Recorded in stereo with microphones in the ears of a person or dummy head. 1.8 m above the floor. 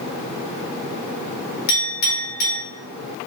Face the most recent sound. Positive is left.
turn(degrees=60)  # may be behind; listen again after turning